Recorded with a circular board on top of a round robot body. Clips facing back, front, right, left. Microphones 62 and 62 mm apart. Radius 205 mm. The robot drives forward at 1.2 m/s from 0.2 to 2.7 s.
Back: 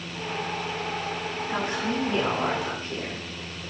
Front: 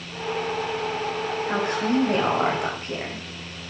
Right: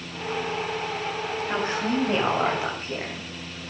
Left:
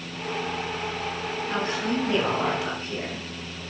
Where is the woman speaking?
25° right, 7.5 m; by 3.2 s 30° right, 6.5 m.